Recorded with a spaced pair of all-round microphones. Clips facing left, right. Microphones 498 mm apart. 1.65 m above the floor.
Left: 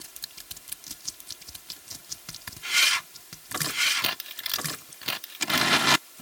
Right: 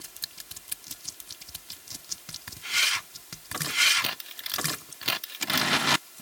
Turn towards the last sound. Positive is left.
No sound to turn to.